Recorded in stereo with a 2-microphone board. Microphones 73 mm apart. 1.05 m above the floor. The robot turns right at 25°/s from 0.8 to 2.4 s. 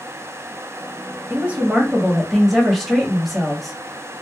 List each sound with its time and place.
1.3 s a woman speaking: 25° right (ahead or behind), 1.3 m; by 3.8 s centre (ahead or behind), 1.3 m